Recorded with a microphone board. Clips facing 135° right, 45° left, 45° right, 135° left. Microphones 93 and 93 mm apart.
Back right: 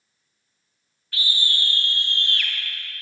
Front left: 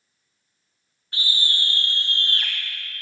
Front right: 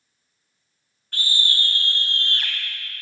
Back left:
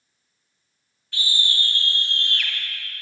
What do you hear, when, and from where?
1.1 s a scream: 15° right, 2.5 m; by 2.5 s straight ahead, 1.9 m